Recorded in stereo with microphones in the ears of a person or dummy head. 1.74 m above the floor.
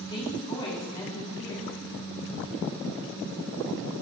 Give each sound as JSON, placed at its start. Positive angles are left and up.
{"t": 0.1, "sound": "a woman speaking", "side_deg": 25, "distance_m": 5.5}